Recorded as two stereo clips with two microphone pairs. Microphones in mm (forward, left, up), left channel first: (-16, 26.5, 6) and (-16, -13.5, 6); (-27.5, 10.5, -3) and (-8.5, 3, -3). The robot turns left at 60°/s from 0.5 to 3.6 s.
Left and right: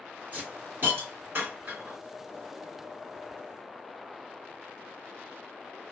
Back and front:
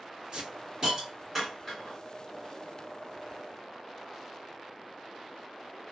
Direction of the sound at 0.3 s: 55° right.